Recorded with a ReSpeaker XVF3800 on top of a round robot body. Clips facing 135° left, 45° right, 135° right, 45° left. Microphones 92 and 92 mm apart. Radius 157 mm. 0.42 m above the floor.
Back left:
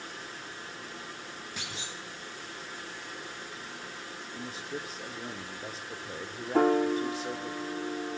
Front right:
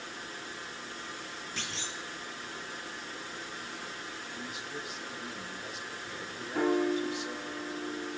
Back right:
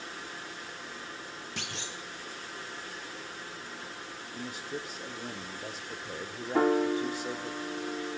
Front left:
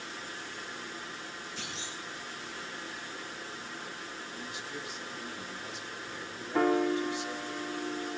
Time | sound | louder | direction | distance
1.6 | a clunk | front right 2 dB, back right 1 dB | 145° right | 1.8 m
4.3 | a man speaking | back left 4 dB, back right 6 dB | 175° right | 1.6 m
6.5 | a piano | back left 4 dB, back right 1 dB | 150° left | 2.0 m